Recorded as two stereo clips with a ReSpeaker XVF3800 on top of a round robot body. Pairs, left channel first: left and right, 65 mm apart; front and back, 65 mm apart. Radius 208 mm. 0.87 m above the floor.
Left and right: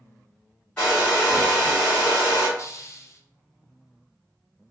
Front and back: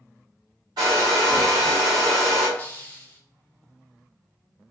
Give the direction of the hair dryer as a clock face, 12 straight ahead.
6 o'clock.